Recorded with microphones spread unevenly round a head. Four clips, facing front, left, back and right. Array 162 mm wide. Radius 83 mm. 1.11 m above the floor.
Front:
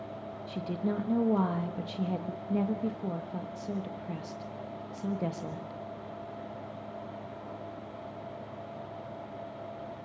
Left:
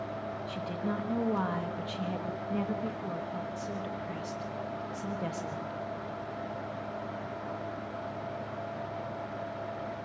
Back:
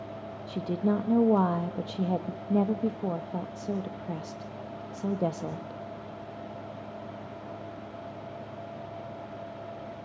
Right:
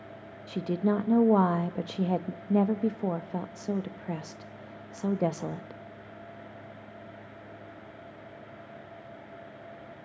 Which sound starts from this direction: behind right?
A woman speaking, at 0.5 s.